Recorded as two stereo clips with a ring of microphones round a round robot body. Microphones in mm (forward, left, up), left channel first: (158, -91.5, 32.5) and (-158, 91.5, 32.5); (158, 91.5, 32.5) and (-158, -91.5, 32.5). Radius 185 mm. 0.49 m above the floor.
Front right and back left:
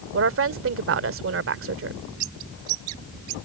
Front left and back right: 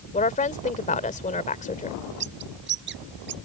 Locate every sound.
0.1 s a woman speaking: 100° left
2.2 s a bird: 150° left